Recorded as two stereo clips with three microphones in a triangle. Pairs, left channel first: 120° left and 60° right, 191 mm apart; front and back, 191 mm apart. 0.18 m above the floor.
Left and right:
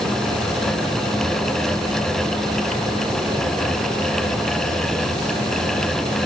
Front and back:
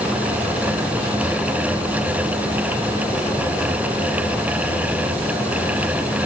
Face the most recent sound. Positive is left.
No sound to turn to.